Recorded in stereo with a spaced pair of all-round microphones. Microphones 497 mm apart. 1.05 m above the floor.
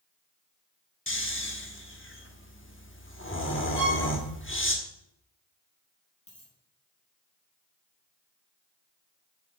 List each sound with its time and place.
1.1 s snoring: 25° left (ahead or behind), 1.0 m
3.8 s a violin: 55° left (ahead or behind), 4 m
6.3 s a dropped coin: 15° left (ahead or behind), 4.5 m